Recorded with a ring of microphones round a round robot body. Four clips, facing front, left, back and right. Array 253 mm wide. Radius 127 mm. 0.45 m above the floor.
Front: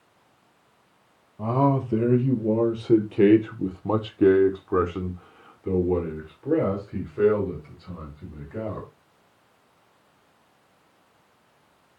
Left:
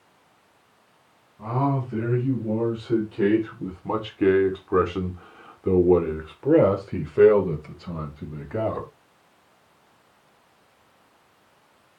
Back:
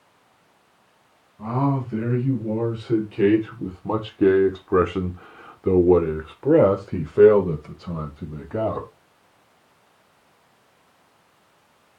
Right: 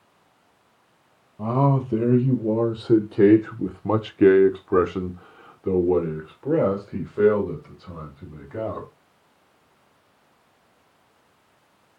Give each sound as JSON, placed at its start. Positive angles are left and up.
{"t": 1.4, "sound": "a man speaking", "azimuth_deg": -45, "distance_m": 2.5}